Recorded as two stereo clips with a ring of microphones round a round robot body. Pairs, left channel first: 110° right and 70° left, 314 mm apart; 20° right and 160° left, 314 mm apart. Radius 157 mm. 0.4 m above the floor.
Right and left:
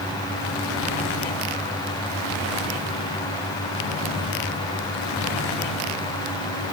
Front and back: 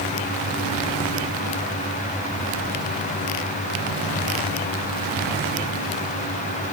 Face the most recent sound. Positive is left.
No sound to turn to.